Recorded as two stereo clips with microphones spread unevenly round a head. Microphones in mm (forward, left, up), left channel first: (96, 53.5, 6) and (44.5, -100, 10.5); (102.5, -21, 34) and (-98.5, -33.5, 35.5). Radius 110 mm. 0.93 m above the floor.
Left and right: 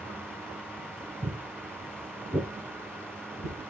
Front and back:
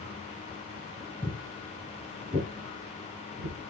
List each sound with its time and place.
1.2 s footsteps: 70° right, 1.0 m; by 3.7 s 145° left, 1.3 m